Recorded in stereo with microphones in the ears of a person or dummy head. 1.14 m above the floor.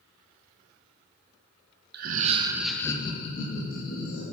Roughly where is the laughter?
Right.